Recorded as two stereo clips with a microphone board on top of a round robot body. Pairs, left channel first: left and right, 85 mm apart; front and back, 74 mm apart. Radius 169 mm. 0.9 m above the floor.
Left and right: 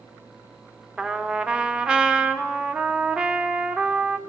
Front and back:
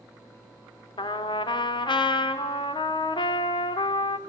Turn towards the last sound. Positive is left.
turn(degrees=-10)